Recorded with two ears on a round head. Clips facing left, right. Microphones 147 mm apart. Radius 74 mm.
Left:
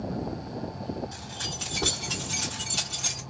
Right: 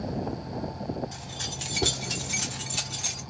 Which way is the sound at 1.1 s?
20° right (ahead or behind).